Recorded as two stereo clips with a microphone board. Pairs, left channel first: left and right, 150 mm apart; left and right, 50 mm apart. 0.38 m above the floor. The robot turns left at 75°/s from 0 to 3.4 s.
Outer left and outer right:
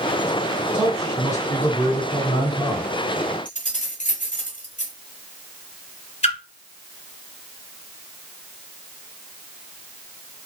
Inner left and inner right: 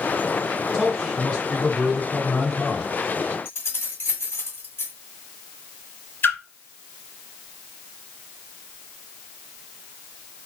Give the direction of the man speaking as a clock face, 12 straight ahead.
6 o'clock.